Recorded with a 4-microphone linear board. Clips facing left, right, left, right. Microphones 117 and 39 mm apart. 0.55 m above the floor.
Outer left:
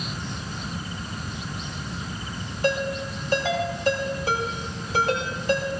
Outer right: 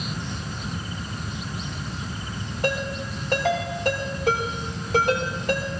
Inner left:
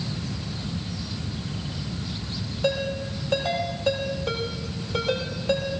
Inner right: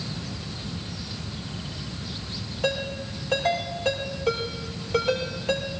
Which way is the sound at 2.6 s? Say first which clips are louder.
Outer left 2 dB, inner left 2 dB; 70° right (ahead or behind).